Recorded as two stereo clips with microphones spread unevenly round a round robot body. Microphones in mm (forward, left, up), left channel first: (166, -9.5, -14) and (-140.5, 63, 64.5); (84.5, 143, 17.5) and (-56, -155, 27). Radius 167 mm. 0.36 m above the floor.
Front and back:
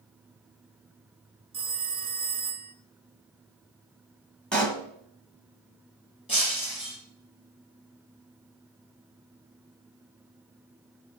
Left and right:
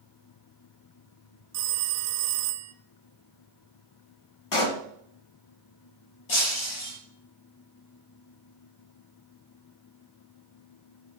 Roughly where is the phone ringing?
Right.